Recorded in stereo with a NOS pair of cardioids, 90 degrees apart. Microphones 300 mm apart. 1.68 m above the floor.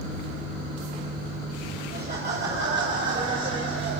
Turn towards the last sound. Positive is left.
turn(degrees=-40)